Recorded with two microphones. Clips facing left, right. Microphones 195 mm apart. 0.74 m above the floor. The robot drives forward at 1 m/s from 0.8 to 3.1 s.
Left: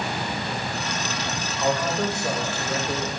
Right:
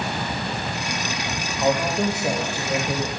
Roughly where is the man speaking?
Centre.